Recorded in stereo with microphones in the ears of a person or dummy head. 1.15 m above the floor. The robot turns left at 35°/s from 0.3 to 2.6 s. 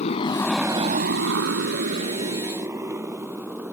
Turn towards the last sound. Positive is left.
turn(degrees=-10)  # may be behind; listen again after turning